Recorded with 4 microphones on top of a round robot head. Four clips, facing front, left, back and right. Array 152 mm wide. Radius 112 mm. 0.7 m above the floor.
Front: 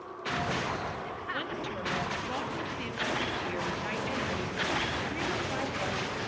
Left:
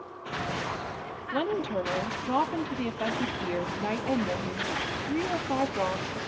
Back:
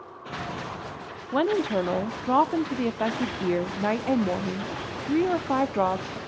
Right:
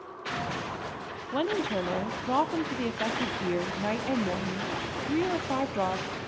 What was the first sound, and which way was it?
A woman speaking, 175° right.